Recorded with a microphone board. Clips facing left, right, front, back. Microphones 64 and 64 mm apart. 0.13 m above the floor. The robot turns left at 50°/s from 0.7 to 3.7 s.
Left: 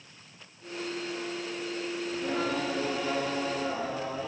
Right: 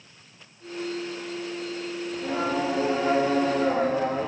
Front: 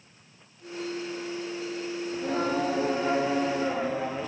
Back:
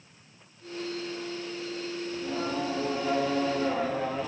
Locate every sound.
2.1 s singing: 5° left, 2 m; by 4.3 s 75° right, 2 m